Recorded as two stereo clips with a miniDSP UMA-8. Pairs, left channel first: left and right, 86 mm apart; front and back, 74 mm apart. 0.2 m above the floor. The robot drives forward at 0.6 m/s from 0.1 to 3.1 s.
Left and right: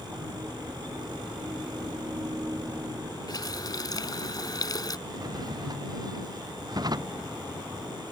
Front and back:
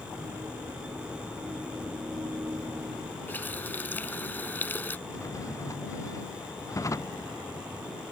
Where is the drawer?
45° right.